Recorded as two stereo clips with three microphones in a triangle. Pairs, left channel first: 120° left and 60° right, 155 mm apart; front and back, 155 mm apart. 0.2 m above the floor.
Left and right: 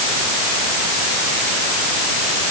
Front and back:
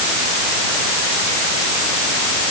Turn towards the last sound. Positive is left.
No sound to turn to.